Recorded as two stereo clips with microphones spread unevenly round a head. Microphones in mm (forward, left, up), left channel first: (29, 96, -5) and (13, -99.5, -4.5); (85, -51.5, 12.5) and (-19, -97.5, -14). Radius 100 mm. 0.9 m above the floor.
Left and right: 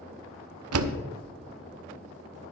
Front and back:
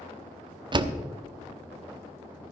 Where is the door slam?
105° right, 0.8 m.